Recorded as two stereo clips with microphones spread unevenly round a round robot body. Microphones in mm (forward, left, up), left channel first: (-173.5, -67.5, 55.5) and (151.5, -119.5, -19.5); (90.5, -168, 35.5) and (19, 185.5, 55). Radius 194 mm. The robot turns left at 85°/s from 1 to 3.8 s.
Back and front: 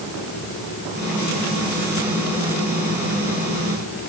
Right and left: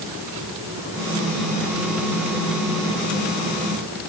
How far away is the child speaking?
I don't hear a child speaking.